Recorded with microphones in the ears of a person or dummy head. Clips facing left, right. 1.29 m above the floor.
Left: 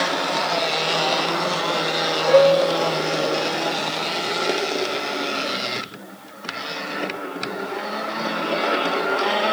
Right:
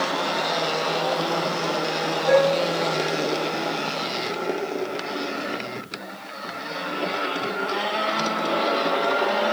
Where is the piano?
5° left (ahead or behind), 8.5 m.